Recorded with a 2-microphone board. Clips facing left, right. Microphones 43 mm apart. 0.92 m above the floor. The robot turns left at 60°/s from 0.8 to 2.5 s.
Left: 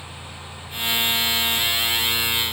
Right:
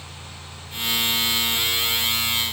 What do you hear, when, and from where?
Only background noise.